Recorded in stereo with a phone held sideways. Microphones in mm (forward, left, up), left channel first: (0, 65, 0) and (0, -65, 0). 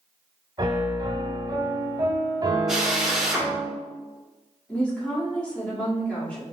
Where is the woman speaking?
10° left (ahead or behind), 2 m.